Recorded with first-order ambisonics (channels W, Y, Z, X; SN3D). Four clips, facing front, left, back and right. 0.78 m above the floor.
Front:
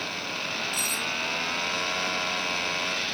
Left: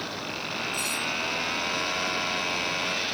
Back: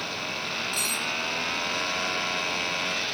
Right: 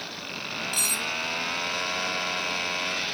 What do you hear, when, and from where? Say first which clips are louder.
0.7 s cutlery clinking: right 4 dB, back 1 dB; 105° right, 1.5 m